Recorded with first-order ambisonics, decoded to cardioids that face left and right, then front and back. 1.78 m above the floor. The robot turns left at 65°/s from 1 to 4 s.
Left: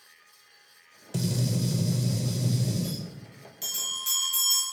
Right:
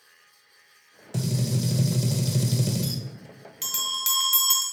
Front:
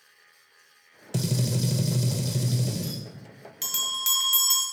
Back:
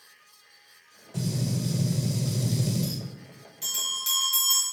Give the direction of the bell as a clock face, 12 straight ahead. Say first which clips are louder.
Right 4 dB, front 2 dB; 1 o'clock.